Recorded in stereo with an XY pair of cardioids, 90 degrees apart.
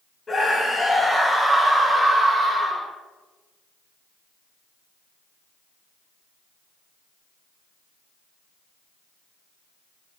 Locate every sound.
0.3 s a scream: 30° left, 0.8 m; by 2.9 s 25° right, 1.6 m